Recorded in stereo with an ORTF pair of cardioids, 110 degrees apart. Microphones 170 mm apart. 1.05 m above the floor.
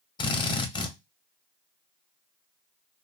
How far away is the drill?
About 0.8 m.